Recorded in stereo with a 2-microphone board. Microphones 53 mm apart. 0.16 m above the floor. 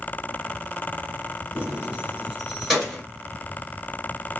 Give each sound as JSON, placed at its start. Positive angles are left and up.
{"t": 1.6, "sound": "keys jangling", "side_deg": -25, "distance_m": 1.7}